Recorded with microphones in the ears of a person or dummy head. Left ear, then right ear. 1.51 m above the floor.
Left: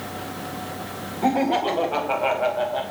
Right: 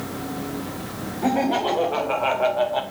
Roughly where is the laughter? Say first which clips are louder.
Left 1 dB; left.